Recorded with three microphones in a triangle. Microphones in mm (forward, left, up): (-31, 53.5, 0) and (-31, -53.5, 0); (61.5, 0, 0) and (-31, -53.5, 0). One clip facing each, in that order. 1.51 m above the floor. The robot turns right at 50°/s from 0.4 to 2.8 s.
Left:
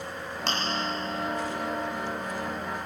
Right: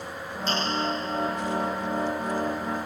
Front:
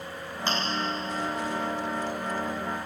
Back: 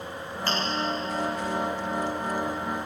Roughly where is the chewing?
Left.